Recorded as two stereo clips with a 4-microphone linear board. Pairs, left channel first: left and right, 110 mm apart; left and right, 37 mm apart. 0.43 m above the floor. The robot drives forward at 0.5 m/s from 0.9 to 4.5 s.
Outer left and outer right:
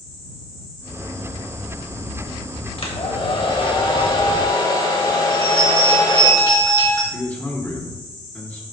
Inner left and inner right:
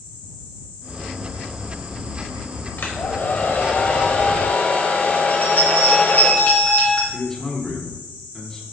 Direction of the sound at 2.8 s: 60° left (ahead or behind).